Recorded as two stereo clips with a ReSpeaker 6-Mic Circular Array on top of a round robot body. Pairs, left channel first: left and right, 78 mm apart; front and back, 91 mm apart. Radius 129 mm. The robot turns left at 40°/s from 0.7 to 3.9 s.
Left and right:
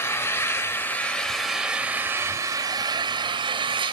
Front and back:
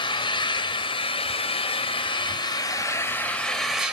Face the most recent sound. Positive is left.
turn(degrees=-100)